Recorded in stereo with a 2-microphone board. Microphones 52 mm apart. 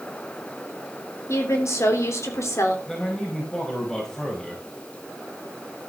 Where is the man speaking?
10° left (ahead or behind), 4.5 m.